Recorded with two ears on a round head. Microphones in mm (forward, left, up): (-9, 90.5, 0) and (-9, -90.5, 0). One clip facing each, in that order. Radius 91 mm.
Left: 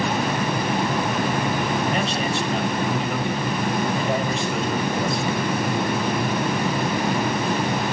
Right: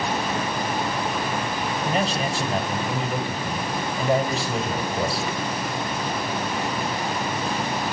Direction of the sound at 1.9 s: 5° right (ahead or behind).